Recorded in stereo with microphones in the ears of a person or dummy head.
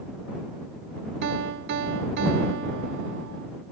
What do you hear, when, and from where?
1.2 s a piano: 65° right (ahead or behind)